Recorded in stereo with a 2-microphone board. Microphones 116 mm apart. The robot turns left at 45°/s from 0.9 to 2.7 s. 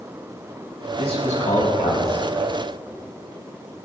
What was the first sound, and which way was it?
A man speaking, 115° left.